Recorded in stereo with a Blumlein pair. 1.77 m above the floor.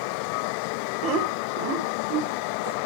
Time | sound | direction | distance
1.0 | laughter | 35° right | 1.8 m